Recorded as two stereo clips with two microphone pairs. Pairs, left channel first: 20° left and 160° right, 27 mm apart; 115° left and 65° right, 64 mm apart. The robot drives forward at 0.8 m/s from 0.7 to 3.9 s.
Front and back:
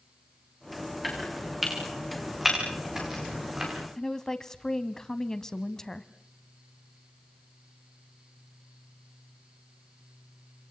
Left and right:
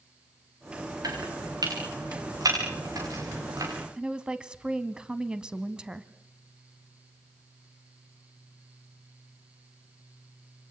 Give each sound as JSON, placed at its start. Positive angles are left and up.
{"t": 1.0, "sound": "chopping", "azimuth_deg": -75, "distance_m": 7.5}
{"t": 4.0, "sound": "a woman speaking", "azimuth_deg": -15, "distance_m": 1.1}